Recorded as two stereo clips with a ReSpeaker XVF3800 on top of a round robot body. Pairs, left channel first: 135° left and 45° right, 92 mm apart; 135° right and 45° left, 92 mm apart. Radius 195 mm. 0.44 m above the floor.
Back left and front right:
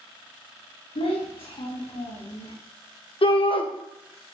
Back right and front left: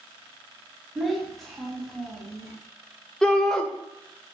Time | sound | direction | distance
0.9 | a child speaking | 135° left | 3 m
3.2 | a shout | 140° left | 1.9 m